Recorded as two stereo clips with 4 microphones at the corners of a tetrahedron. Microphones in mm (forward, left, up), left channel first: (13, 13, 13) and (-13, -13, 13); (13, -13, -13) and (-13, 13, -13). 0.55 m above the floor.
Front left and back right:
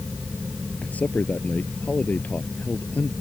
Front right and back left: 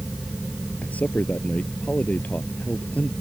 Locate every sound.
0.8 s a man speaking: straight ahead